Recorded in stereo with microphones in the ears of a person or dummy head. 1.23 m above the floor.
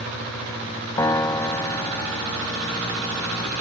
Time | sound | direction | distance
1.0 | a piano | 20° left (ahead or behind) | ?